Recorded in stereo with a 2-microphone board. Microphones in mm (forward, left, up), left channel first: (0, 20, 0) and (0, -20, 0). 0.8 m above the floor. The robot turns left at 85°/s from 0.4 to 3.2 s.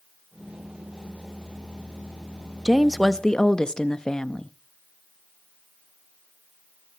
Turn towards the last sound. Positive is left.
turn(degrees=155)